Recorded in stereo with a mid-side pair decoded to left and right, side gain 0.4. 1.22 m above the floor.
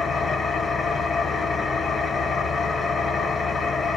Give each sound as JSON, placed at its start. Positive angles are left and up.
{"t": 0.0, "sound": "an engine running", "azimuth_deg": 45, "distance_m": 0.9}